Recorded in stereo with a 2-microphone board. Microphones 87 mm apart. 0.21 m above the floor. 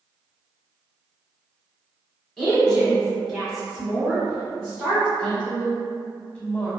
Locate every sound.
2.4 s a woman speaking: 5° left (ahead or behind), 1.3 m; by 5.1 s 10° right (ahead or behind), 1.5 m
5.2 s a woman speaking: 15° left (ahead or behind), 1.0 m